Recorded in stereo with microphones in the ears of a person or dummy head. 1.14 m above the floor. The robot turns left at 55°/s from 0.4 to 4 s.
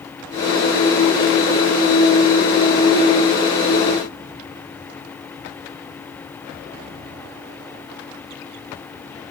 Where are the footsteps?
No footsteps in this recording.